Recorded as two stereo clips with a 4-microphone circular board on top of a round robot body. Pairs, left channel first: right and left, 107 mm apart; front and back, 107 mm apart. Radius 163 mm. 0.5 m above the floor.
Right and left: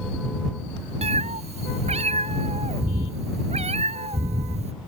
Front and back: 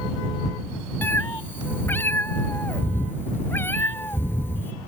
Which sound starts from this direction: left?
A cat meowing, at 1.0 s.